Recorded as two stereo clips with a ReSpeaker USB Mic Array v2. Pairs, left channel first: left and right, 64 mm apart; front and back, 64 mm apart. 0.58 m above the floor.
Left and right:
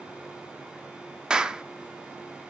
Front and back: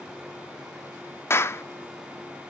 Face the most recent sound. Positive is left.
turn(degrees=-20)